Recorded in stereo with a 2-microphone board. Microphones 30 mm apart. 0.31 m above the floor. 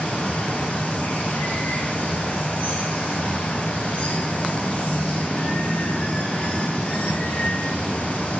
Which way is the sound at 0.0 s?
45° left (ahead or behind).